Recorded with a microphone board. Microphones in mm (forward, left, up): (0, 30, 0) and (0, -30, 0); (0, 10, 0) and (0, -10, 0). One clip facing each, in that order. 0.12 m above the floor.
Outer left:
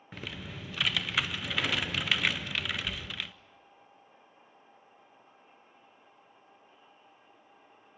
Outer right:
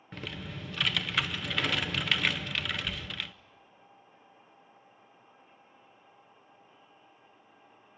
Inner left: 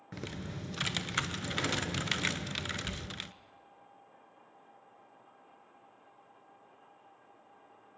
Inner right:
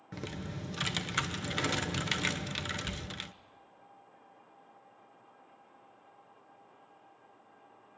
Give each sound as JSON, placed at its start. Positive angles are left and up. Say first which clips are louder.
{"t": 0.1, "sound": "typing on a keyboard", "louder": "outer right 1 dB, inner right 1 dB", "side_deg": 0, "distance_m": 0.6}